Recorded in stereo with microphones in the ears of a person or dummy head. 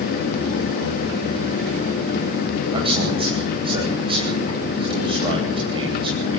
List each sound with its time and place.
2.7 s a man speaking: 25° right (ahead or behind), 9.5 m